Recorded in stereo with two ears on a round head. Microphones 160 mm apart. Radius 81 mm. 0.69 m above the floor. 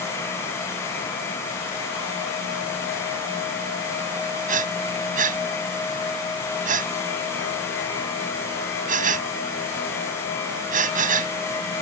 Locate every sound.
4.5 s breathing: 50° right (ahead or behind)